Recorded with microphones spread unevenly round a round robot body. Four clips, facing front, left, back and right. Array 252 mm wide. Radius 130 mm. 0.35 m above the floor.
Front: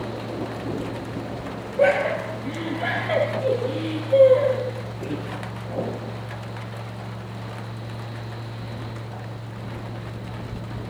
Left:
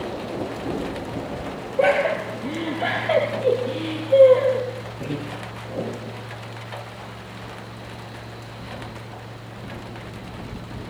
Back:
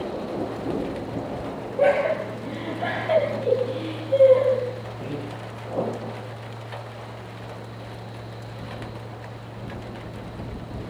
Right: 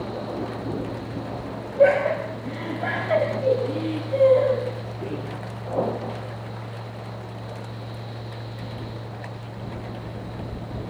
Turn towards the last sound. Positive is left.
turn(degrees=85)